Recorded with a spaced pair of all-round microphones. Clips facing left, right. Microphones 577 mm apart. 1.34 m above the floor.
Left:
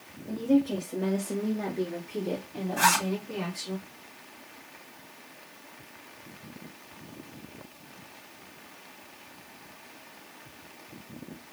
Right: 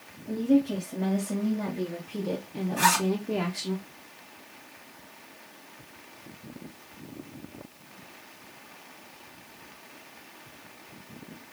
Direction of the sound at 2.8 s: 10° left (ahead or behind).